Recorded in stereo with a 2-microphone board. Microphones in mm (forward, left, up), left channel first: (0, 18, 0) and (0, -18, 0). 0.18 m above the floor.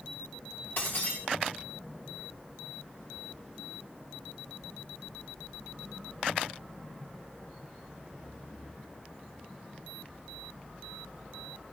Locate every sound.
0.8 s breaking glass: 65° left (ahead or behind), 6.5 m